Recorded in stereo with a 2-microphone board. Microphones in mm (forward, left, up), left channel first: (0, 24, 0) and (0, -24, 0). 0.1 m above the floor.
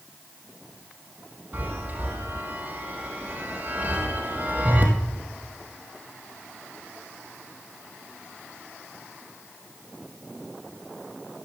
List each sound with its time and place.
1.5 s a chime: 35° right (ahead or behind), 3 m